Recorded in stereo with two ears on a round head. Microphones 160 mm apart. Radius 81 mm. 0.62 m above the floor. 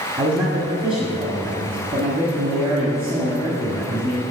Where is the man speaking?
30° right (ahead or behind), 1.3 m.